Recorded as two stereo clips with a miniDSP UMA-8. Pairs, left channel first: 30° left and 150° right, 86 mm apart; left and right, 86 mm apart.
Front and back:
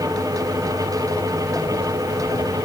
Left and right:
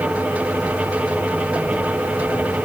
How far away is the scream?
I don't hear a scream.